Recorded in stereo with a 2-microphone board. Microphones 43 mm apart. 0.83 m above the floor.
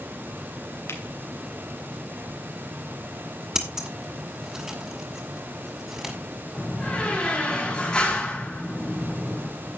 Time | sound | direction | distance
0.9 | a finger snap | 90° left | 2.5 m
3.5 | scissors | 15° right (ahead or behind) | 2 m
6.5 | a door slam | 20° left (ahead or behind) | 6.5 m